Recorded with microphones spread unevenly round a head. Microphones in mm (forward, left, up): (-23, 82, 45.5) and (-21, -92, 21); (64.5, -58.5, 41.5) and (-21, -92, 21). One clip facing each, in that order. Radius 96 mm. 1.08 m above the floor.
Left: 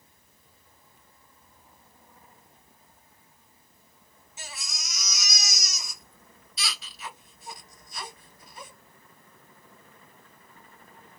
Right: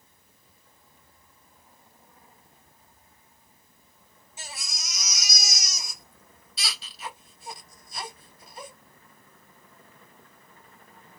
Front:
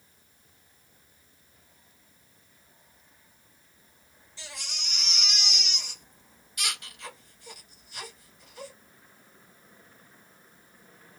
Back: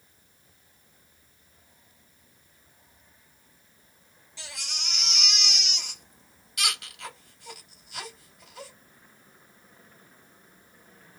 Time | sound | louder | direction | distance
4.4 | a baby crying | right 1 dB, back 1 dB | 150° right | 1.9 m